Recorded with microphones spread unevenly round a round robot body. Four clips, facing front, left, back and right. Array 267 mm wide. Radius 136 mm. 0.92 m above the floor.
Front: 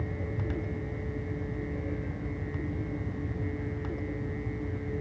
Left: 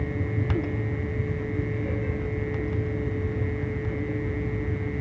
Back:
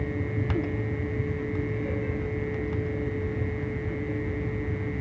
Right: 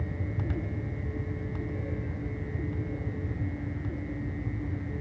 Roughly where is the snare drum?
I don't hear a snare drum.